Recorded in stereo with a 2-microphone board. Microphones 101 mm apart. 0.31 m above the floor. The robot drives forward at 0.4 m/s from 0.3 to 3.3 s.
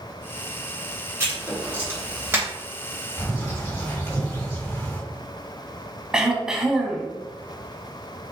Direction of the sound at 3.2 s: 30° left (ahead or behind).